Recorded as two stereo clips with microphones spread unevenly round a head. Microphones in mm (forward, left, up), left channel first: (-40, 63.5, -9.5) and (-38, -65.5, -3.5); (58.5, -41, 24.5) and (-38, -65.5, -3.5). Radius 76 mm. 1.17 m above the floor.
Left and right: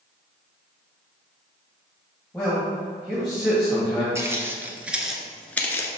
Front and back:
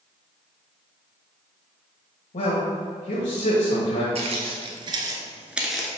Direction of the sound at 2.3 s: 5° left.